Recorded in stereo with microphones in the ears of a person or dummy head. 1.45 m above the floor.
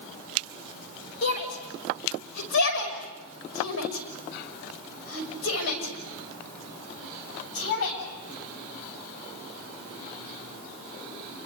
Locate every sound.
1.2 s a shout: 55° left (ahead or behind), 5.5 m; by 8.0 s 90° left, 8 m